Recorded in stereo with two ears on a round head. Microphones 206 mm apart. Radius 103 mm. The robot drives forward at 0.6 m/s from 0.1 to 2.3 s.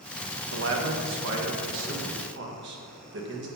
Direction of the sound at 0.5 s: 55° right (ahead or behind).